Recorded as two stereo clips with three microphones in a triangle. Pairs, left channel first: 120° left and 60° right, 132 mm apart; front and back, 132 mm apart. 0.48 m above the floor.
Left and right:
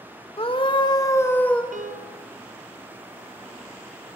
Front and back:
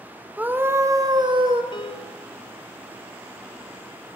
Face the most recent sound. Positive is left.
turn(degrees=-50)